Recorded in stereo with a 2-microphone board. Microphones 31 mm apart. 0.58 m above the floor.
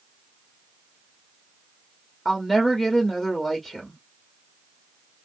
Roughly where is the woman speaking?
Centre.